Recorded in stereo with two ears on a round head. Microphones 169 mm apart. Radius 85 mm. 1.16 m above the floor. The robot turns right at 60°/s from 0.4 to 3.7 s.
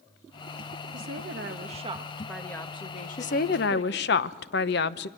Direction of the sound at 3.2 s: 40° left.